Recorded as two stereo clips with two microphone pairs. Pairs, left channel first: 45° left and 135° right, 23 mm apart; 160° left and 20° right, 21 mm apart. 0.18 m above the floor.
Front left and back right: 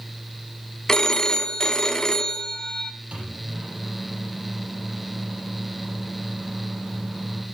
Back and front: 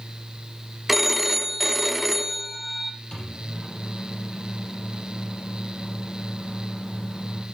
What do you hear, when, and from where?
0.9 s a phone ringing: 45° left, 0.6 m
3.1 s a microwave: 155° right, 4.5 m